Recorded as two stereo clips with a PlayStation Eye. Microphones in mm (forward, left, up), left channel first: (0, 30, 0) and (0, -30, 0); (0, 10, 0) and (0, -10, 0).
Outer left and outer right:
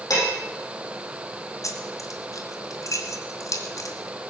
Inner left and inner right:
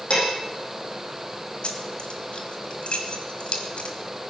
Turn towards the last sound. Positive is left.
turn(degrees=65)  # may be behind; listen again after turning